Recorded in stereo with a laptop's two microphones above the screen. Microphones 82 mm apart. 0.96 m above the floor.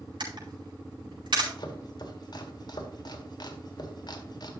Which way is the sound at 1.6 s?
55° left (ahead or behind).